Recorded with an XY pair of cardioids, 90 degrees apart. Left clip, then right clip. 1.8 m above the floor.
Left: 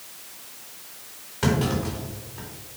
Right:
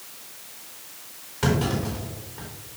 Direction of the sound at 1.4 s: 10° left.